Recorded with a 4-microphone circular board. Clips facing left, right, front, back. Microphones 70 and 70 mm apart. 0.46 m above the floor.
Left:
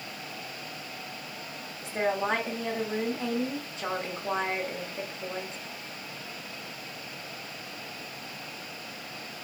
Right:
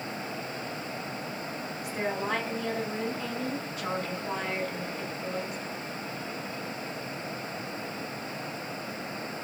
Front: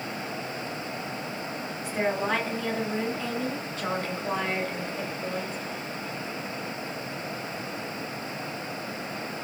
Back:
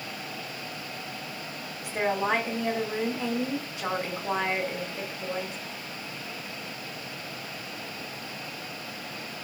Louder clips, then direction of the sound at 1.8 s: Left 4 dB, back 1 dB; 115° left.